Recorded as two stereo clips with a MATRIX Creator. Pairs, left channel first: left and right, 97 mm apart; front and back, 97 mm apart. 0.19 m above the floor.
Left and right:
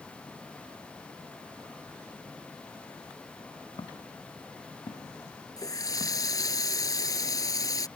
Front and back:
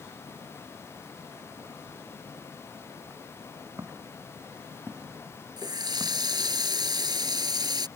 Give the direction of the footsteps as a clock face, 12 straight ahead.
8 o'clock.